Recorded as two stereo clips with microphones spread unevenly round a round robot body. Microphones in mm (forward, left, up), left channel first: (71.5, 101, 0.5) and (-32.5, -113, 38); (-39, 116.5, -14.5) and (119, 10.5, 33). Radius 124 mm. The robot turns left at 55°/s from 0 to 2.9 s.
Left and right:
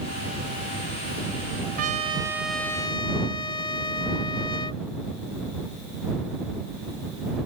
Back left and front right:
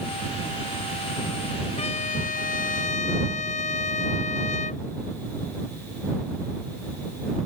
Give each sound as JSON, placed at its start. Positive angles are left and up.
{"t": 1.8, "sound": "a trumpet", "azimuth_deg": -175}